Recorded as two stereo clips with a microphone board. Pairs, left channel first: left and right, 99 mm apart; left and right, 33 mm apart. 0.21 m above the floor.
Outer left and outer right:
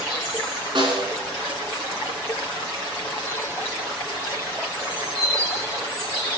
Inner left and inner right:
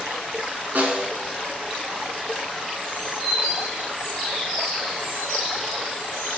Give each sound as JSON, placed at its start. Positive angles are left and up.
{"t": 0.8, "sound": "a snare drum", "side_deg": -50, "distance_m": 1.7}